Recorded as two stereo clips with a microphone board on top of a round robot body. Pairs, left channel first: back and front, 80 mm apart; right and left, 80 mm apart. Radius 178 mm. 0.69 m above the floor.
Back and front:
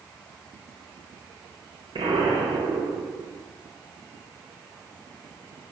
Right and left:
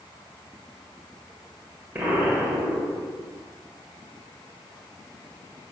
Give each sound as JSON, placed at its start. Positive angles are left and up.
{"t": 1.9, "sound": "an explosion", "azimuth_deg": 20, "distance_m": 1.4}